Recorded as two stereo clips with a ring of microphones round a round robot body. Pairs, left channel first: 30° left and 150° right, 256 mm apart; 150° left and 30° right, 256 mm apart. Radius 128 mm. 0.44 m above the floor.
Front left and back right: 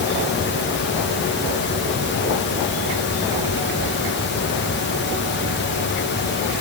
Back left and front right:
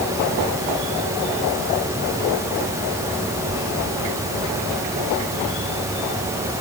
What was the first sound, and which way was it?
Only background noise.